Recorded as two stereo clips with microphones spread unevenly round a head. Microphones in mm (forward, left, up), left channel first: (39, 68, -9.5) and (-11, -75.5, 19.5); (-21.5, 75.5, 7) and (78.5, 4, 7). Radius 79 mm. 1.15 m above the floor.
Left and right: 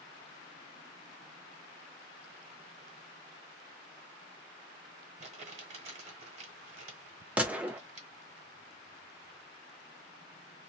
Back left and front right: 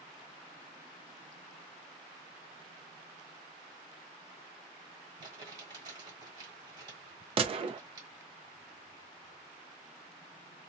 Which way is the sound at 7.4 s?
20° right.